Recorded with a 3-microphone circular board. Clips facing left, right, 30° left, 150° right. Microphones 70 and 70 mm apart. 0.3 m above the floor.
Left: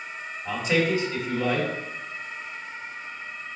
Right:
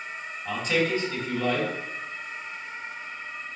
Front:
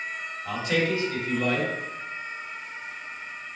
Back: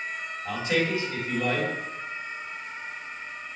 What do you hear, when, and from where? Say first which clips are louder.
0.5 s a man speaking: left 2 dB, front 1 dB; 155° left, 2.0 m